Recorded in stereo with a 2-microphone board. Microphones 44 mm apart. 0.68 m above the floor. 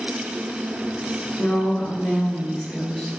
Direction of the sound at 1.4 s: 50° left (ahead or behind).